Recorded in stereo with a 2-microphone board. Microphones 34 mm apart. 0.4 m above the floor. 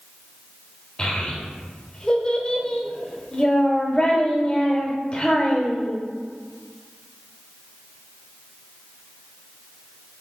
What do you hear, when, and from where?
1.0 s a child speaking: 25° left (ahead or behind), 0.8 m